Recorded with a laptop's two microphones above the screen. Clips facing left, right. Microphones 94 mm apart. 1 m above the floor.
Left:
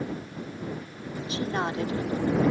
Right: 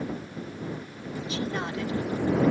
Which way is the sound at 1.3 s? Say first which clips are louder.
Left 3 dB; 35° left (ahead or behind).